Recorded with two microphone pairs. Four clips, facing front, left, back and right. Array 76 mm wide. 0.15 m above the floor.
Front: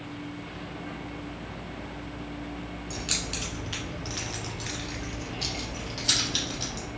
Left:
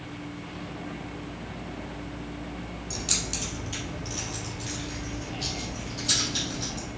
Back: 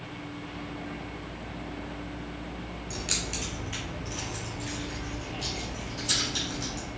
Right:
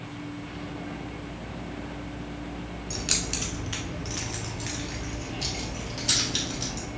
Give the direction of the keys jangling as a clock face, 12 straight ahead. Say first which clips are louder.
Right 2 dB, even; 3 o'clock.